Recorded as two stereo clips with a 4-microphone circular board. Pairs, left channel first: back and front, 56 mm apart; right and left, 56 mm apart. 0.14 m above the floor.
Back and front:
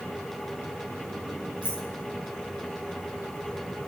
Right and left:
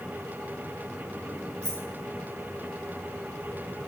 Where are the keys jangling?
65° left, 4 m.